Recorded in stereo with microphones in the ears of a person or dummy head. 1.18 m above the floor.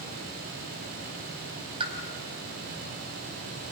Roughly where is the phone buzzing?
No phone buzzing in this recording.